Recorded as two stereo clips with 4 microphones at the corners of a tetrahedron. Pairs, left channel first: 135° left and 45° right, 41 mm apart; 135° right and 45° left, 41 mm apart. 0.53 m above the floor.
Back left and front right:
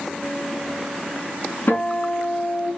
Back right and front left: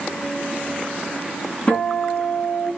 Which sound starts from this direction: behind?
A guitar, at 1.7 s.